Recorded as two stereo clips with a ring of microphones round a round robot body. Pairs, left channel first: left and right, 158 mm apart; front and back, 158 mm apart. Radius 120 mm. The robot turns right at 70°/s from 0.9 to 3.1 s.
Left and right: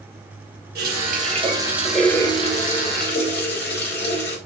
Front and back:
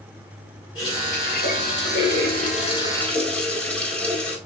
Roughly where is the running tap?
Right.